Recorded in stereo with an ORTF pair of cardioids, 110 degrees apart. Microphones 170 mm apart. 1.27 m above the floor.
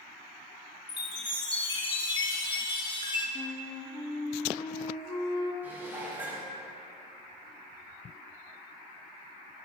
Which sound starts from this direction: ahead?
Dishes clattering, at 5.6 s.